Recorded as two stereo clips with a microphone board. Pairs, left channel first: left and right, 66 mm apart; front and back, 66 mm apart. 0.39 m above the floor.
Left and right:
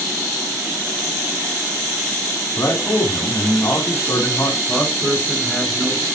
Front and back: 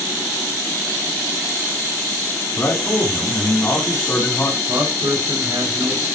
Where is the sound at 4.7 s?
Straight behind, 5.5 m.